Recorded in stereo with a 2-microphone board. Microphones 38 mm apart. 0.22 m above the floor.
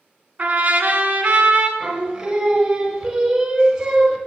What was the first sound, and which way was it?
A trumpet, 40° right (ahead or behind).